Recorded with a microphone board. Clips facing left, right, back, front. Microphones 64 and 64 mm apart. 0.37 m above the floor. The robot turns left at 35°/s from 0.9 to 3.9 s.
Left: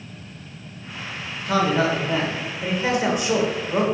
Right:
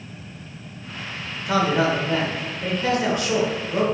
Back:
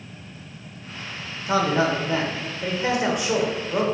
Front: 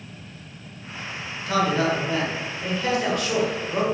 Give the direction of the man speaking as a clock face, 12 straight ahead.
6 o'clock.